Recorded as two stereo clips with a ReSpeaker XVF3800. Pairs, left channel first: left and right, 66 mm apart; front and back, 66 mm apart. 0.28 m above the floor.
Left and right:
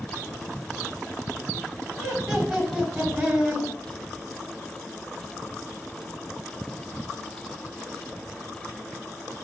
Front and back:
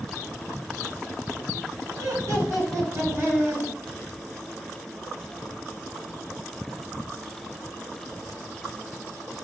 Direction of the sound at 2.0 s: 175° left.